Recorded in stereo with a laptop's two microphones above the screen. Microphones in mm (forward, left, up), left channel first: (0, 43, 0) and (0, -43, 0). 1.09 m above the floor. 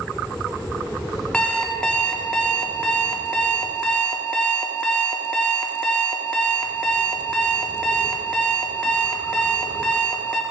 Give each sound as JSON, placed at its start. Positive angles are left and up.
{"t": 1.3, "sound": "an alarm clock", "side_deg": 10, "distance_m": 0.5}